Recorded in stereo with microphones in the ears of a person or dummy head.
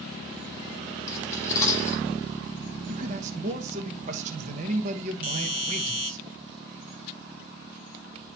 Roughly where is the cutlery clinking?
Centre.